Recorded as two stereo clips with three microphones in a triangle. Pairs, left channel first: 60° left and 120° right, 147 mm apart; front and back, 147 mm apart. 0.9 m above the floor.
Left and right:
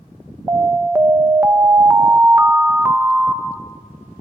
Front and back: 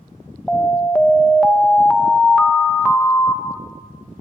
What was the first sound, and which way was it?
An alarm, 75° right.